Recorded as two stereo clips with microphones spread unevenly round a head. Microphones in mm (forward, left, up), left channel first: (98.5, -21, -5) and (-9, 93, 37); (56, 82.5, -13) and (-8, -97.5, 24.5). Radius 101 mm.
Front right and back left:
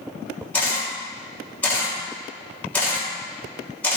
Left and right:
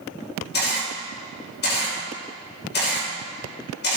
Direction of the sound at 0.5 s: 35° left.